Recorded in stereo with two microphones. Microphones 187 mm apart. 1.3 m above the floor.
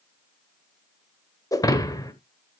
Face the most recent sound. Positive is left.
turn(degrees=20)  # may be behind; listen again after turning